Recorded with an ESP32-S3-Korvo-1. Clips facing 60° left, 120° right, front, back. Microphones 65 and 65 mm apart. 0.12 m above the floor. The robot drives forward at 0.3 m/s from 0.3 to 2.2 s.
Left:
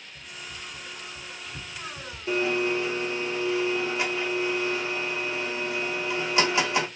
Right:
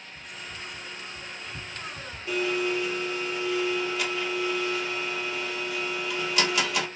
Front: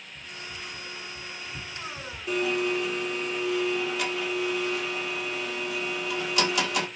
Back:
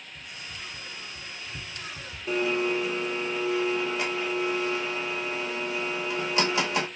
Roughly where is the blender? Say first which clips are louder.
Left 2 dB, back 1 dB; behind left.